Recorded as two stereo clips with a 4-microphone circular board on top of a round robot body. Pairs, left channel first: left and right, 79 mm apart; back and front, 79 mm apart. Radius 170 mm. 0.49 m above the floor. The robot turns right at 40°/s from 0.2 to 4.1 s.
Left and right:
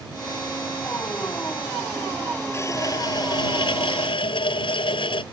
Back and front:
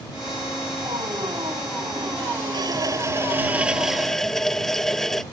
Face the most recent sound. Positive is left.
turn(degrees=95)